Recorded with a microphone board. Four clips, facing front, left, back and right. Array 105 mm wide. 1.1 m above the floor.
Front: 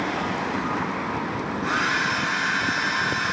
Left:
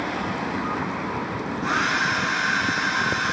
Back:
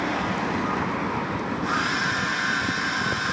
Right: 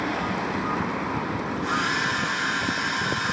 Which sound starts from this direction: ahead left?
A hair dryer, at 1.6 s.